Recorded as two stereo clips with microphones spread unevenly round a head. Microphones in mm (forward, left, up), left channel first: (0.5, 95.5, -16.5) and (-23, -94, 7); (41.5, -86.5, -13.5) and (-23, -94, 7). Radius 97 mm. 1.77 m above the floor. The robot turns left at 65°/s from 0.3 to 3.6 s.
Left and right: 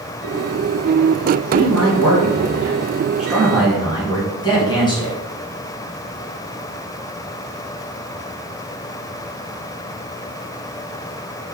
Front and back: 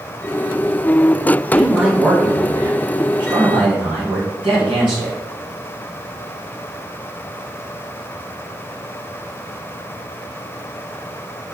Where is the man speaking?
70° right, 2.0 m; by 5.2 s 150° left, 2.0 m.